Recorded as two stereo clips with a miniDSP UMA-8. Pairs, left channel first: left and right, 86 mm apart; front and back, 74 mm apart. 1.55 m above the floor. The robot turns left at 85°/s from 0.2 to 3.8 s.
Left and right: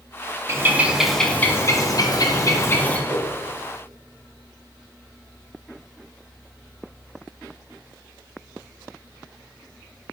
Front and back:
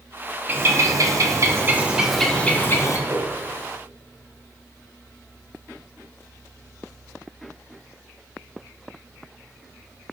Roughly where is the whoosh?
Right.